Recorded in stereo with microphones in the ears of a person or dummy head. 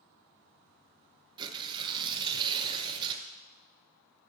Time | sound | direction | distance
1.4 | tearing paper | 20° right (ahead or behind) | 0.7 m